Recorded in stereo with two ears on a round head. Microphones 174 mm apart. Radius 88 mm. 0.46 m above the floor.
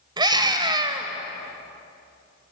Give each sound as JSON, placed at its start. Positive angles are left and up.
{"t": 0.2, "sound": "a scream", "side_deg": -20, "distance_m": 2.5}